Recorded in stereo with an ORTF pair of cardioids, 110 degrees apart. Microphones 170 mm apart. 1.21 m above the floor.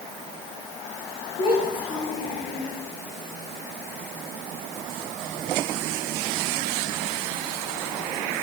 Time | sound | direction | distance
1.4 | a child speaking | 35° left | 3 m